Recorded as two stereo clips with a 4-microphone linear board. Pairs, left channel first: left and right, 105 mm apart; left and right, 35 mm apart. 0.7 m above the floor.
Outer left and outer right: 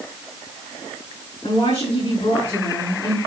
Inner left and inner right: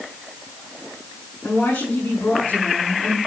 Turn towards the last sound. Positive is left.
turn(degrees=55)  # may be behind; listen again after turning